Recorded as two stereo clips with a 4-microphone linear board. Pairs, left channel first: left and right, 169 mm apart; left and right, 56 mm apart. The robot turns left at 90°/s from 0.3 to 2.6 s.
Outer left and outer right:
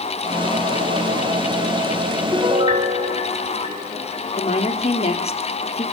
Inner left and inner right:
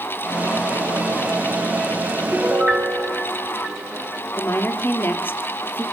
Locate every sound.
2.3 s a piano: centre (ahead or behind), 3 m; by 4.2 s 30° right (ahead or behind), 3 m
4.4 s a woman speaking: 40° left (ahead or behind), 2.5 m